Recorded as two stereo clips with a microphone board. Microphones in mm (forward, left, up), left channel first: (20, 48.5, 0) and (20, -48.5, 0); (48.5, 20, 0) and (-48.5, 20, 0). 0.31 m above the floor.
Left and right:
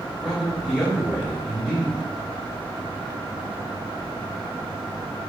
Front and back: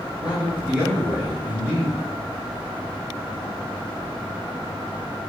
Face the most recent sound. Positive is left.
turn(degrees=-170)